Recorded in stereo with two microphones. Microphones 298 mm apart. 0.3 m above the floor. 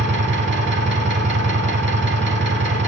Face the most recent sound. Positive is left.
turn(degrees=-40)  # may be behind; listen again after turning